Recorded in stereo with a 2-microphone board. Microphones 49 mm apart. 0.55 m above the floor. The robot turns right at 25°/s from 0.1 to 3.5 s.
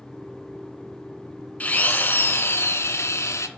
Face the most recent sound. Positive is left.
turn(degrees=80)